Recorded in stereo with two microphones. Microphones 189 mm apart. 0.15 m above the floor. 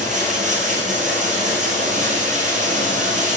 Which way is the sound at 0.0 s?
40° right (ahead or behind).